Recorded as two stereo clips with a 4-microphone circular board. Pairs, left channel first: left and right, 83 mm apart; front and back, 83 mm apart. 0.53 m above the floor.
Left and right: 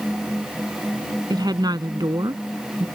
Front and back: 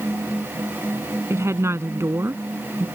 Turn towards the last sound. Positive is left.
turn(degrees=-125)